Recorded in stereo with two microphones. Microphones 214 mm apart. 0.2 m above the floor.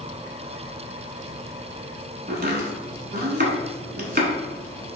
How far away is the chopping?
About 0.9 m.